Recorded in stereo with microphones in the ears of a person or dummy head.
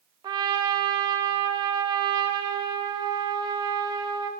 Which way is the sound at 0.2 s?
20° right (ahead or behind).